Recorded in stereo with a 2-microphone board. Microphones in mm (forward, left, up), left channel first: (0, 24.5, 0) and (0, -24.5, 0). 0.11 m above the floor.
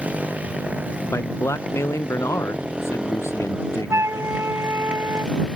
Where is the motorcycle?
30° right (ahead or behind); by 5.5 s 15° right (ahead or behind).